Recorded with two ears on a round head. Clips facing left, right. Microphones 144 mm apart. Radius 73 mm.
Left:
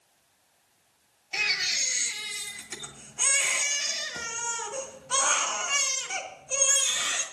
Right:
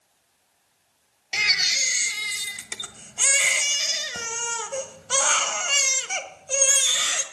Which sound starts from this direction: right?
A baby crying, at 1.3 s.